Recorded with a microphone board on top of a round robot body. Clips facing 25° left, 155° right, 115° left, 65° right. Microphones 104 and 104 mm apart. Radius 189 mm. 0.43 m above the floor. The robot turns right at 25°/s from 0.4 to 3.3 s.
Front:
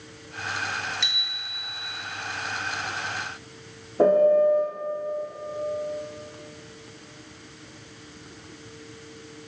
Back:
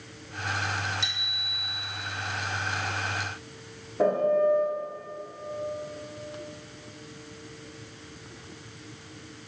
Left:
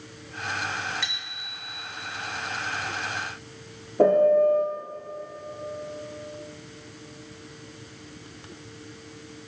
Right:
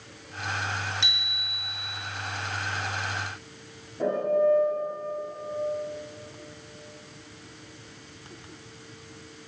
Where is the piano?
85° left, 6.5 m.